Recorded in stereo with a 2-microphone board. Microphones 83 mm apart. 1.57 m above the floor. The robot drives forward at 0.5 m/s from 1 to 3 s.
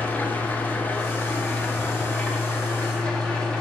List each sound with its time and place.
0.0 s an engine running: 20° left (ahead or behind), 1.2 m; by 3.6 s 10° left (ahead or behind), 2 m